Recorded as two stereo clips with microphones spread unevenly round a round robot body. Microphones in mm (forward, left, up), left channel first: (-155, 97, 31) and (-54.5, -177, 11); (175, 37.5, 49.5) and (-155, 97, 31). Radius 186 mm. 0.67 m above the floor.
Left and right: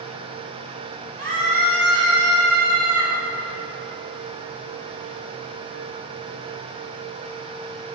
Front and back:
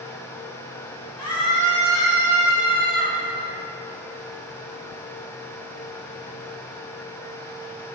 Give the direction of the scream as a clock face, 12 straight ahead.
2 o'clock.